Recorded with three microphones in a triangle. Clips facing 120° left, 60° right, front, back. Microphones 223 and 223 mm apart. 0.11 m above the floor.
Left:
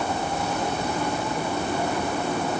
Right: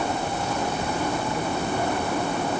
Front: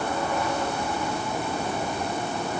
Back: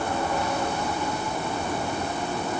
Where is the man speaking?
I don't hear a man speaking.